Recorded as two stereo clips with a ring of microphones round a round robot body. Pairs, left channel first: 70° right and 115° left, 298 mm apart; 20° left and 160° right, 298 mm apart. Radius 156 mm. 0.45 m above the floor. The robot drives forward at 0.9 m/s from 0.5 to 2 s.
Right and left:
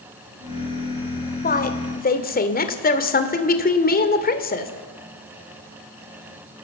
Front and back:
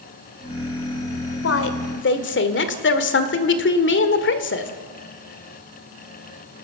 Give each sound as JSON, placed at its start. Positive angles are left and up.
{"t": 1.4, "sound": "a woman speaking", "azimuth_deg": -10, "distance_m": 2.0}